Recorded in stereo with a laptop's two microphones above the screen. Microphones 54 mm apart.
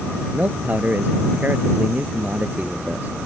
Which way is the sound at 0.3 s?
30° right (ahead or behind).